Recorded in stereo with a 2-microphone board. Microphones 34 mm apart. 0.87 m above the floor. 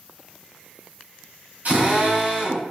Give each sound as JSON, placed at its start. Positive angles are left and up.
{"t": 1.6, "sound": "a drill", "side_deg": -55, "distance_m": 3.5}